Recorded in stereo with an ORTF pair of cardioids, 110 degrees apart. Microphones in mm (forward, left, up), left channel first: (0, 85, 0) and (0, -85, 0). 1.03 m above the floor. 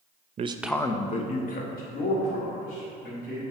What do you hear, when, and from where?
0.4 s a man speaking: 40° right, 0.6 m; by 3.4 s 65° left, 4 m